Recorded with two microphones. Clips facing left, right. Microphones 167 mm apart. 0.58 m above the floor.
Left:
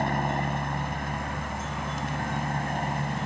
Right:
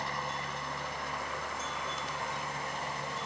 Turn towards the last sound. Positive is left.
turn(degrees=60)  # may be behind; listen again after turning